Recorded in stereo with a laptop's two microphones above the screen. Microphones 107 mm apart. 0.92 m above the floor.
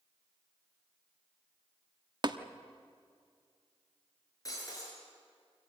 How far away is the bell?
No bell in this recording.